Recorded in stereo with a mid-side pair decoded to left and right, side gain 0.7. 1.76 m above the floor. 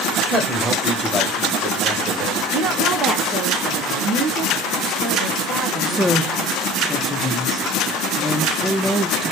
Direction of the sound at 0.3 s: 5° left.